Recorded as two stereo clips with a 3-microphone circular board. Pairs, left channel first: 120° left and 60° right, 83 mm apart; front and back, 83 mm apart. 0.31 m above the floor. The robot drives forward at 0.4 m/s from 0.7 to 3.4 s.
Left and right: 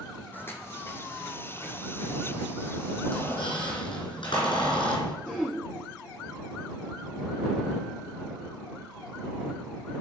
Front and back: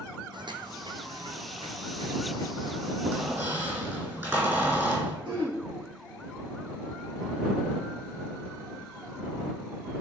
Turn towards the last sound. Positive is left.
turn(degrees=-160)